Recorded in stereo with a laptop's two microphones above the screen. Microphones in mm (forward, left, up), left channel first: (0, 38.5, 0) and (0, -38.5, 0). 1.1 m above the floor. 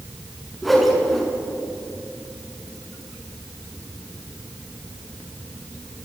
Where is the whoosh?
Centre (ahead or behind), 6 m.